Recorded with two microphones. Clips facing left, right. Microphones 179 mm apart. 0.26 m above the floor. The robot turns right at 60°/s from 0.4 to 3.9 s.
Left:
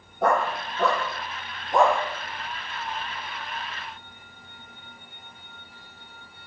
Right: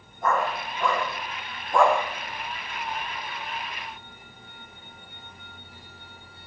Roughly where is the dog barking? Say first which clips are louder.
Left 3 dB; left.